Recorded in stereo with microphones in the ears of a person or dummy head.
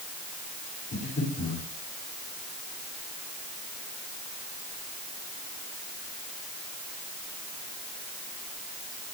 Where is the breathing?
40° left (ahead or behind), 9.5 m.